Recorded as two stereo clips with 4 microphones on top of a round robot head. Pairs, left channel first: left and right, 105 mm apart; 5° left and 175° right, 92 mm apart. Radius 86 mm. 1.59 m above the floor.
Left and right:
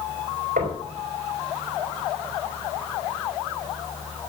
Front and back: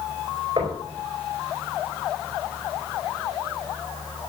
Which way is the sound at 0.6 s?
120° right.